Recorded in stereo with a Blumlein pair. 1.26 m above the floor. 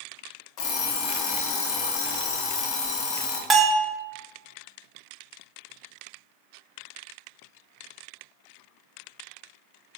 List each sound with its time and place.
0.6 s an alarm clock: 40° left, 1.3 m
3.5 s a bell: 20° right, 0.8 m